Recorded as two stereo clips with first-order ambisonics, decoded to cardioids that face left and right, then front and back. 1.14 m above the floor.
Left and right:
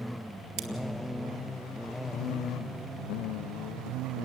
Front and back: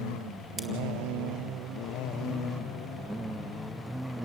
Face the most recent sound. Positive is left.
turn(degrees=-105)